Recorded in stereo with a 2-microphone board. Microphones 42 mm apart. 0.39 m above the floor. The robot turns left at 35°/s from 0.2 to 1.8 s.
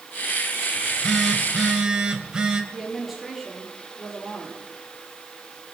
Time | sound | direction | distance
0.8 | a phone buzzing | 10° left | 1.8 m
2.7 | a woman speaking | centre (ahead or behind) | 6 m